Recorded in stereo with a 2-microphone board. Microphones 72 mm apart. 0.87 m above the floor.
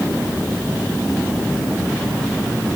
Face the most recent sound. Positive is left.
No sound to turn to.